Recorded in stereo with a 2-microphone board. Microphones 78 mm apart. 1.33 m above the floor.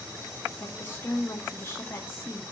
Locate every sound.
0.6 s a woman speaking: 30° left (ahead or behind), 1.7 m